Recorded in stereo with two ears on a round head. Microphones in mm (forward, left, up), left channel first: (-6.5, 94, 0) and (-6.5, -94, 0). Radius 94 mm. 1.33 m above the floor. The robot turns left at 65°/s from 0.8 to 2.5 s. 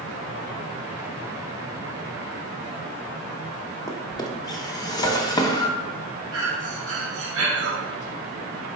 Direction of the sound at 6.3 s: 70° right (ahead or behind).